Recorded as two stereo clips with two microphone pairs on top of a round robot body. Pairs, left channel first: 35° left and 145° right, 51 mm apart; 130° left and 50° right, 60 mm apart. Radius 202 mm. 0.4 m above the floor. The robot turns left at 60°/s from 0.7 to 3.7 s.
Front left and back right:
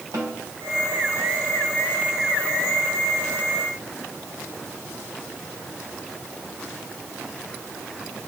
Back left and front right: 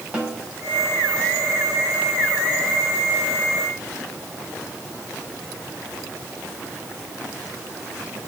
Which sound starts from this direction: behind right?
A snare drum, at 0.1 s.